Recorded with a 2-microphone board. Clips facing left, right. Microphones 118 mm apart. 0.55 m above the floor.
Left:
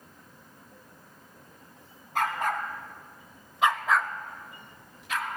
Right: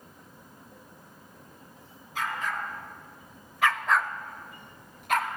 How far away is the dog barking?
About 1.9 m.